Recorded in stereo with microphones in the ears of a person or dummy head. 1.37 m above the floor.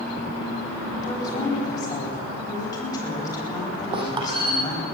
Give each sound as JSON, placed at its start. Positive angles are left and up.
{"t": 1.0, "sound": "a woman speaking", "side_deg": 30, "distance_m": 9.0}
{"t": 3.9, "sound": "a squeak", "side_deg": -30, "distance_m": 2.5}